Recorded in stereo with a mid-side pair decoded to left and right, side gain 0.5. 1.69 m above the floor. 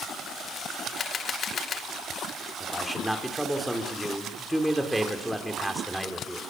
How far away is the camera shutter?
About 2 m.